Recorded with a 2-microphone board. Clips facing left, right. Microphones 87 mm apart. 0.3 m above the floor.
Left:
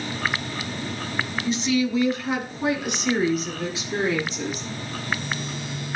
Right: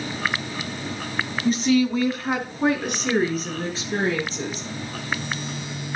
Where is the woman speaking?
45° right (ahead or behind), 2 m; by 4.7 s 35° right (ahead or behind), 6.5 m.